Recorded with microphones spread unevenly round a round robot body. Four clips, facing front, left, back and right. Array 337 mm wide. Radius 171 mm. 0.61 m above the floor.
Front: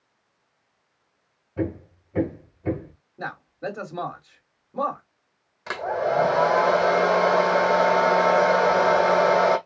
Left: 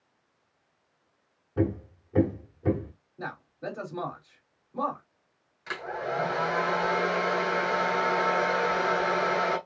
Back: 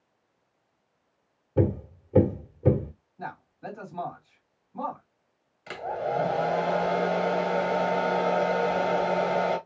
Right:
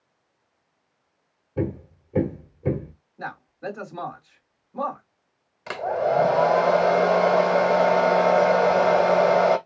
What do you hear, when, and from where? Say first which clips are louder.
1.6 s hammering: even, back 3 dB; straight behind, 1.1 m
3.2 s a man speaking: right 3 dB, front 6 dB; 10° left, 3 m
5.7 s a hair dryer: right 10 dB, front 5 dB; 45° right, 1.5 m